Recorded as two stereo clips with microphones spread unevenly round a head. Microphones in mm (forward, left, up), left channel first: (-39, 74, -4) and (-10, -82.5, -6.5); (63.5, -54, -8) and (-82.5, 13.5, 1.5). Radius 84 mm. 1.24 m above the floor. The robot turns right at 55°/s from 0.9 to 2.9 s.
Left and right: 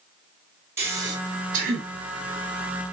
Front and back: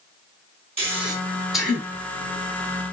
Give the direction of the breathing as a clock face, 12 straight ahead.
5 o'clock.